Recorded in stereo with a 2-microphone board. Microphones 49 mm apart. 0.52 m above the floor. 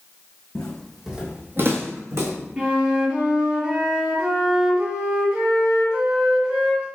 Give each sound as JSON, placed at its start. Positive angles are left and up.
{"t": 0.6, "sound": "footsteps", "side_deg": 15, "distance_m": 1.3}
{"t": 2.6, "sound": "a flute", "side_deg": -20, "distance_m": 1.3}